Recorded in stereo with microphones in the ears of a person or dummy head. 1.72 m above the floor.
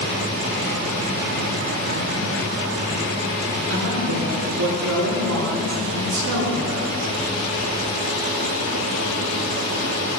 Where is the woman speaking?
65° right (ahead or behind), 3 m.